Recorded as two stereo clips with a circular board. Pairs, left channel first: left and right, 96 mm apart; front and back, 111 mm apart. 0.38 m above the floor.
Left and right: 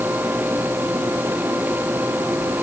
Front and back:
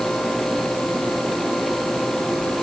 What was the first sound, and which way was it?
Only background noise.